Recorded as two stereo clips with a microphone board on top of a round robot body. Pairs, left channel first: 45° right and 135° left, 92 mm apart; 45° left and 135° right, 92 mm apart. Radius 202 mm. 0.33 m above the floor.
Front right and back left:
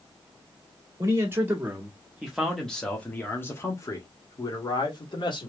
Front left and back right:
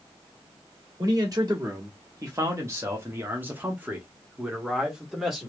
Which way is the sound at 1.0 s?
175° right.